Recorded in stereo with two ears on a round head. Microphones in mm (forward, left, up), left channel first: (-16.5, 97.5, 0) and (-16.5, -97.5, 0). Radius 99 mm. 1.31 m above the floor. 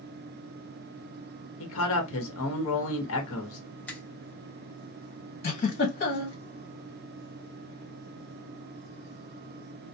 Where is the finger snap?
5° left (ahead or behind), 0.9 m.